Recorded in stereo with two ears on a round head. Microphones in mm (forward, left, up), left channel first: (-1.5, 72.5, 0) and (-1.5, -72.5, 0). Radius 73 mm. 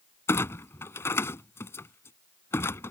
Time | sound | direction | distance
0.3 | a clunk | 15° left (ahead or behind) | ?